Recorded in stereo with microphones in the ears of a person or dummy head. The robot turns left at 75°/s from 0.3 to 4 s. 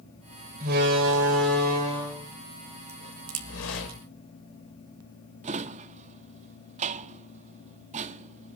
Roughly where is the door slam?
Ahead right.